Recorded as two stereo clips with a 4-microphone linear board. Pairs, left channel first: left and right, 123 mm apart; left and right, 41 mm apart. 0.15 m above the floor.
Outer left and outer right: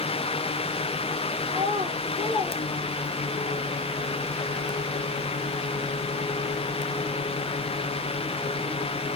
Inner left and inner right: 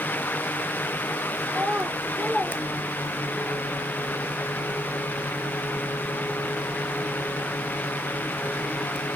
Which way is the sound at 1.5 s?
50° right (ahead or behind).